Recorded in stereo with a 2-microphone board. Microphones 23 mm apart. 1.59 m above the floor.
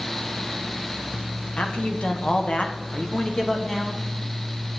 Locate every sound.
1.6 s a man speaking: 80° left, 1.6 m; by 4.0 s 25° left (ahead or behind), 2.0 m